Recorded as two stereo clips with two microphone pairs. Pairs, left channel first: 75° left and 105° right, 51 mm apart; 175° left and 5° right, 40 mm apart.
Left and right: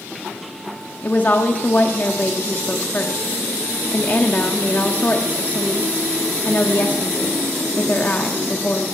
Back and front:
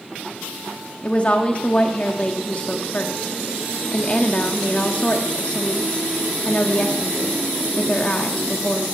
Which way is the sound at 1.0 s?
125° left.